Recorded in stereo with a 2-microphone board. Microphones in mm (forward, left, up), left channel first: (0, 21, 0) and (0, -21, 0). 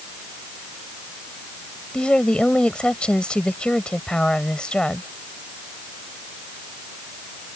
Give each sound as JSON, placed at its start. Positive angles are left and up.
{"t": 1.9, "sound": "a woman speaking", "side_deg": 25}